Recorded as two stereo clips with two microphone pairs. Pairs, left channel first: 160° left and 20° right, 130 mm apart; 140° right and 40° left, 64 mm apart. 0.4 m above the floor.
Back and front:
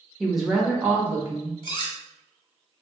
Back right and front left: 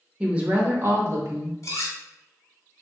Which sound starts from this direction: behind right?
Cutlery clinking, at 1.6 s.